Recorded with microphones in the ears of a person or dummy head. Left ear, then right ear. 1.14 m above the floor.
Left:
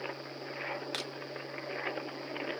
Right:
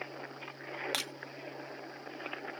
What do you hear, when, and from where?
0.9 s breaking glass: 25° right (ahead or behind)